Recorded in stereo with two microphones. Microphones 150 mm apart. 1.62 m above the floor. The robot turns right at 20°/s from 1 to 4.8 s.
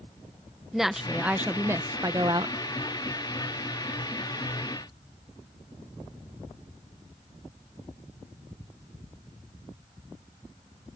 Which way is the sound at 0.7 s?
175° right.